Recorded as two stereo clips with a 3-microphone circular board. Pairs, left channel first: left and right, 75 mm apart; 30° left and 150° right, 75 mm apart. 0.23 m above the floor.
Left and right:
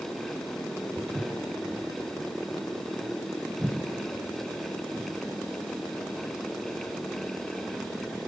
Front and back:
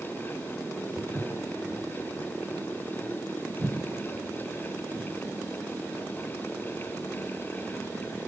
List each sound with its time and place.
1.0 s footsteps: 105° right, 1.2 m; by 5.1 s 155° right, 3 m